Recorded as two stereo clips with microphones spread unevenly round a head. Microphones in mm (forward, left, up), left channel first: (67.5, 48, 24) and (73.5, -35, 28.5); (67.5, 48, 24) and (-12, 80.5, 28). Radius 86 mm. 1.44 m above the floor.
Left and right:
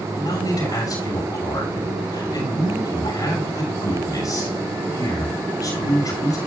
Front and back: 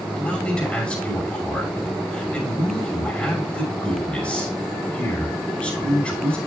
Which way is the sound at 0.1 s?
55° left.